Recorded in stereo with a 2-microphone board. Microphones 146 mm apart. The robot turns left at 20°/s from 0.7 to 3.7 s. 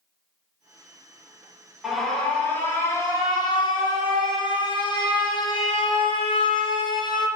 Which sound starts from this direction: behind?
An alarm, at 1.8 s.